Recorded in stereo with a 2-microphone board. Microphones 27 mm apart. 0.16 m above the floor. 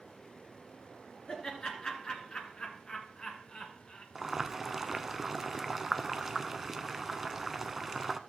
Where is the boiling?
15° right (ahead or behind), 0.5 m.